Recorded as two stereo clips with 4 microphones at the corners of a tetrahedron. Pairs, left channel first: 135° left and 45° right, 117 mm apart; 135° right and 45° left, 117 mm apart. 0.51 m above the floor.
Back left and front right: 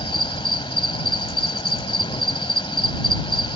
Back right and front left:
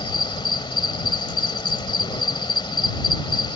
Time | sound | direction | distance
0.0 | an insect | straight behind | ?